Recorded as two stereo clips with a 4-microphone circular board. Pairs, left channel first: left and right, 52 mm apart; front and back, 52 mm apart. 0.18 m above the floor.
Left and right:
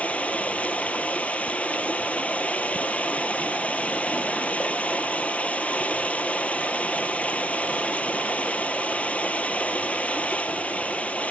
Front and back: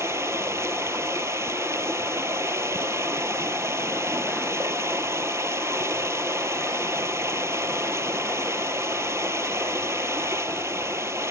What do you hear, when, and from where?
0.0 s running water: 155° left, 0.7 m